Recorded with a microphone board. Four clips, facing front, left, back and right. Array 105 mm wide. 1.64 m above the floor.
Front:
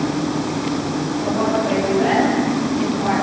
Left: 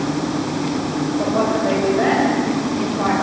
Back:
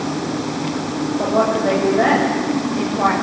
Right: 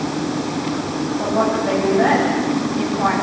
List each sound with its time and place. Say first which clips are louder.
1.2 s a woman speaking: even, back 3 dB; 155° left, 7.5 m